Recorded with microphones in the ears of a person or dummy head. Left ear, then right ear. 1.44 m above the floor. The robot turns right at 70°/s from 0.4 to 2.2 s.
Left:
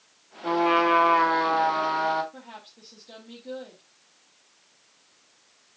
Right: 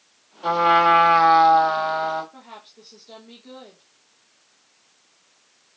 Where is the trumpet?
135° right, 2 m; by 2.2 s 10° right, 2 m.